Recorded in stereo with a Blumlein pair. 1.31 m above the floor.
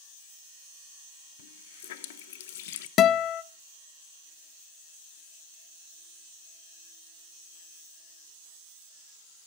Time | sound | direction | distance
1.4 | a running tap | 55° left | 0.7 m
3.0 | a guitar | 30° left | 0.6 m